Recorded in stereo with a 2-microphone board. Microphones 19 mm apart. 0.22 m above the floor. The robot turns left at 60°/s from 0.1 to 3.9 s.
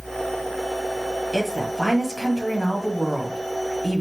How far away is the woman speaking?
About 1.4 m.